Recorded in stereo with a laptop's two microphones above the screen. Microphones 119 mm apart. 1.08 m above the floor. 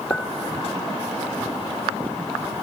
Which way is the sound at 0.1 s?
10° left (ahead or behind).